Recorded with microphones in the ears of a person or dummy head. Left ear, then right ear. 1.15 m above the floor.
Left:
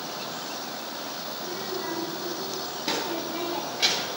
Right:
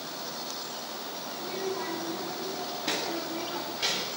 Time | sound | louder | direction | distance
1.3 | a child speaking | right 2 dB | 45° right (ahead or behind) | 3 m